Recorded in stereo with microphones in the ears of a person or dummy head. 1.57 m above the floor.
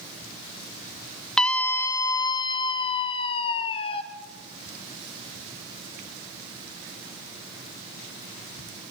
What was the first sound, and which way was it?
A scream, 5° left (ahead or behind).